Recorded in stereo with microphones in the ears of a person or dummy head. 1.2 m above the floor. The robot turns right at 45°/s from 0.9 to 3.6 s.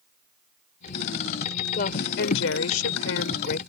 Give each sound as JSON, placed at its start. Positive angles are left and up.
{"t": 1.8, "sound": "a woman speaking", "azimuth_deg": 50}